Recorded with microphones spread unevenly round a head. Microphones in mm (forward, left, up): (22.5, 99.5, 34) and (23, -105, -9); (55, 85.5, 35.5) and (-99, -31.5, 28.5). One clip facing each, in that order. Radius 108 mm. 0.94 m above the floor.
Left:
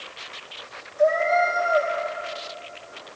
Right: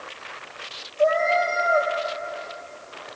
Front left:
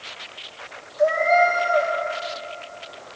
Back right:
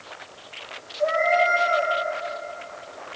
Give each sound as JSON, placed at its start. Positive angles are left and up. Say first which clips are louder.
{"t": 1.0, "sound": "a cat meowing", "louder": "left 1 dB, front left 3 dB", "azimuth_deg": 15, "distance_m": 3.0}